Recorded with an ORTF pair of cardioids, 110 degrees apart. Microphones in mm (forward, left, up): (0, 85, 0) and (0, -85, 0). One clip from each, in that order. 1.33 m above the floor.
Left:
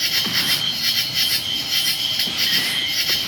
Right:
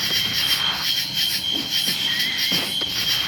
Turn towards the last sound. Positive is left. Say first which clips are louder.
# left 1 dB
turn(degrees=25)